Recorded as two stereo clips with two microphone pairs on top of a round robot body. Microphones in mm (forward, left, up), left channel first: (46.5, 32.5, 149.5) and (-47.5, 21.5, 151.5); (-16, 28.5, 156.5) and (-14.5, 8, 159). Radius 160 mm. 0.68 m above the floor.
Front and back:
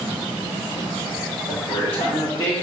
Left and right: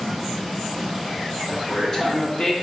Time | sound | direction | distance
1.5 | a woman speaking | 25° left | 1.9 m